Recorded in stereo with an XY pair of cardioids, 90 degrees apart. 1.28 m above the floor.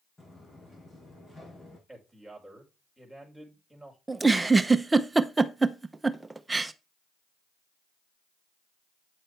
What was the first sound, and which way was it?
Footsteps, 25° left.